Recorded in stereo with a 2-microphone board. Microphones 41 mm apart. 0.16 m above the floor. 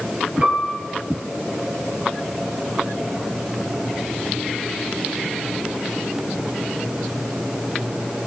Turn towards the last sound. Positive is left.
turn(degrees=-30)  # may be behind; listen again after turning